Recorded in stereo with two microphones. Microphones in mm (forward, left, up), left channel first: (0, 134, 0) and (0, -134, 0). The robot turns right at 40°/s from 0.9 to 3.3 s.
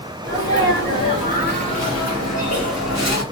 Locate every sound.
0.2 s a sneeze: 15° left, 3 m; by 3.2 s 105° left, 3 m